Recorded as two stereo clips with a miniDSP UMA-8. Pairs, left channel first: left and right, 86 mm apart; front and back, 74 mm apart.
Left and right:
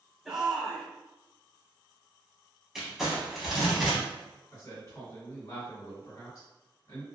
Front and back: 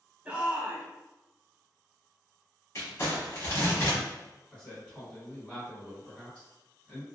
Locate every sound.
0.2 s a shout: straight behind, 0.9 m
2.8 s crumpling: 5° right, 1.0 m
4.5 s a man speaking: 70° left, 1.6 m